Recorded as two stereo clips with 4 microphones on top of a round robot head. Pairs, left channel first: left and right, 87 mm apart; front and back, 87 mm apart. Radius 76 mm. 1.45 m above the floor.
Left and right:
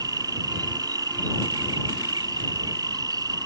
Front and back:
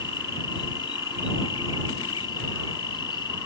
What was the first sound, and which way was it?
An insect, 50° right.